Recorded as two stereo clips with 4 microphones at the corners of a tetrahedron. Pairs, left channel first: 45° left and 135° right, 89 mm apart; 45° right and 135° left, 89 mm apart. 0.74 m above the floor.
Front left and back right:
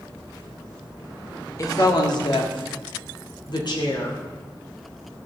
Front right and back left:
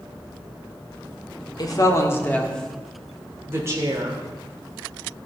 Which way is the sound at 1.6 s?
5° right.